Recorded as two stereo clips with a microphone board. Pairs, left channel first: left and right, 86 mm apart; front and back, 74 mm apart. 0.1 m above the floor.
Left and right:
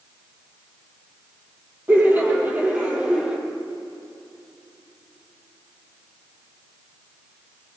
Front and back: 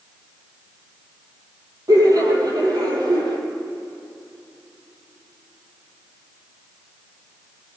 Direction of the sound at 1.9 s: 155° right.